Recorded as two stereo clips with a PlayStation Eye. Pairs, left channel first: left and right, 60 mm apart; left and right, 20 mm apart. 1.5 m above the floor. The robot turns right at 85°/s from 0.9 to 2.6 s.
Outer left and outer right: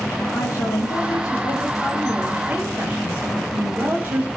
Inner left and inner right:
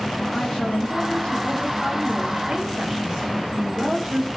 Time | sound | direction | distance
0.3 | a woman speaking | 65° left | 10 m